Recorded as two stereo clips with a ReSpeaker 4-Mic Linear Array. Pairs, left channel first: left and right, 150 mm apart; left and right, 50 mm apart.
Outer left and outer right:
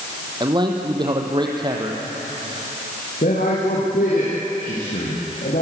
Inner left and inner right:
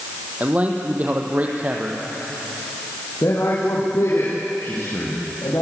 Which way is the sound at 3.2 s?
70° left (ahead or behind).